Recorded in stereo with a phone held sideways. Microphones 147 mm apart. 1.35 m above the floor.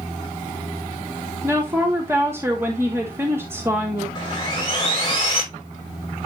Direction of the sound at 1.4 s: 15° right (ahead or behind).